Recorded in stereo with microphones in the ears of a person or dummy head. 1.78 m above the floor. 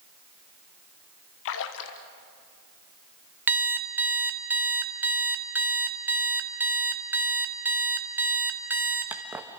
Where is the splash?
65° left (ahead or behind), 1.3 m.